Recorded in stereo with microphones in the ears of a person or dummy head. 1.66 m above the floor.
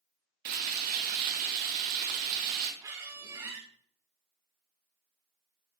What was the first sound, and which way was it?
Frying, 55° right (ahead or behind).